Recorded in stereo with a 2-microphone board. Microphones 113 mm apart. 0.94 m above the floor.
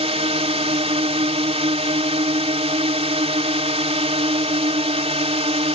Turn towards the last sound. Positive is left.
turn(degrees=-65)  # may be behind; listen again after turning